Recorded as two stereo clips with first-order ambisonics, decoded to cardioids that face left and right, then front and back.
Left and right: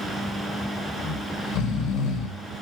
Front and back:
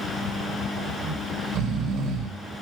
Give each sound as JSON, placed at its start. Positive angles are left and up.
{"t": 1.0, "sound": "snoring", "azimuth_deg": 135, "distance_m": 3.5}